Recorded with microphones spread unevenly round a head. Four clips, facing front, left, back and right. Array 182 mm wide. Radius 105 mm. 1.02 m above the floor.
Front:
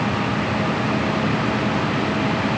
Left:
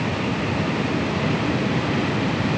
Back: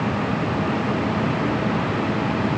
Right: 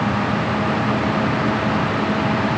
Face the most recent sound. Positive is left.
No sound to turn to.